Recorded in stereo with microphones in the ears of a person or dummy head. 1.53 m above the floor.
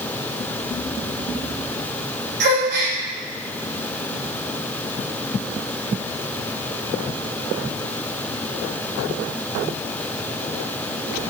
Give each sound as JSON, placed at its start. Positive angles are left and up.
{"t": 2.4, "sound": "a gasp", "side_deg": -60, "distance_m": 0.8}